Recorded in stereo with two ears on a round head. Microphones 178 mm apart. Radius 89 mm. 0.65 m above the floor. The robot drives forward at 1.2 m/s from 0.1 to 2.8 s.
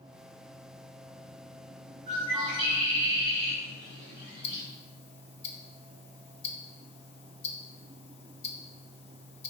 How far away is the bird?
About 1.5 m.